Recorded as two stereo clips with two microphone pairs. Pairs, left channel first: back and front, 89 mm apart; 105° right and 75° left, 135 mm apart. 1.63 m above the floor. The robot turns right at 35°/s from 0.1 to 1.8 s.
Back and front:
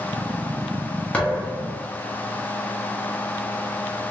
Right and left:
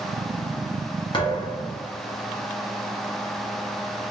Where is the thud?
115° right, 1.1 m; by 1.8 s 95° right, 1.1 m.